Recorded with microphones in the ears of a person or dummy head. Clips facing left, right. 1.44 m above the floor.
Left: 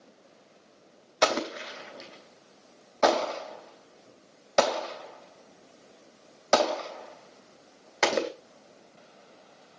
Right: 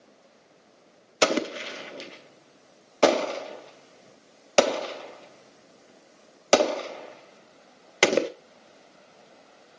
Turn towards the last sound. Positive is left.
turn(degrees=-45)  # may be behind; listen again after turning